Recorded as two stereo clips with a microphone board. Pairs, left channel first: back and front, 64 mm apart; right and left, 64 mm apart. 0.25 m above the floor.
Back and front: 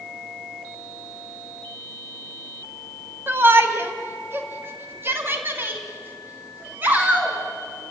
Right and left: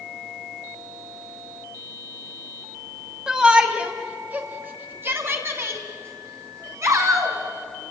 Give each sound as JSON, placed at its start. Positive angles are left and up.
{"t": 3.3, "sound": "a shout", "azimuth_deg": 15, "distance_m": 1.7}